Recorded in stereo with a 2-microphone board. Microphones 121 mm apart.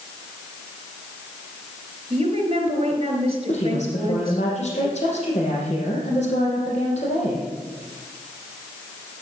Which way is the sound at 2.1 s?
45° right (ahead or behind).